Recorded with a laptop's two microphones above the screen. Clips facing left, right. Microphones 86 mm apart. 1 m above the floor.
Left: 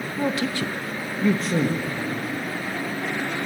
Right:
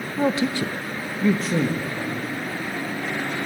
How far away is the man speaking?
About 0.9 m.